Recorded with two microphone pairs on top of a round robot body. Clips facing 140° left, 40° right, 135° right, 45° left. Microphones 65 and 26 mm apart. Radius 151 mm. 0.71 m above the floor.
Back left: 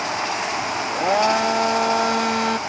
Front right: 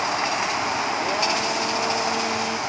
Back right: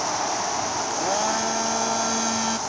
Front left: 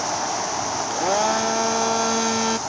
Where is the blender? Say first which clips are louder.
Back left 5 dB, front left 5 dB; 90° left.